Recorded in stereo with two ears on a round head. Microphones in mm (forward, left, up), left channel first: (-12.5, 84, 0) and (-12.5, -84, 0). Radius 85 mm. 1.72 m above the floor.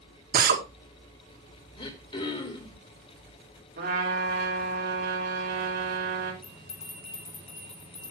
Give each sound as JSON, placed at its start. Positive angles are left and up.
{"t": 0.3, "sound": "a drill", "side_deg": -55, "distance_m": 1.8}
{"t": 1.8, "sound": "throat clearing", "side_deg": 30, "distance_m": 2.5}
{"t": 3.8, "sound": "a trumpet", "side_deg": -50, "distance_m": 3.5}
{"t": 6.4, "sound": "a bell", "side_deg": 35, "distance_m": 4.0}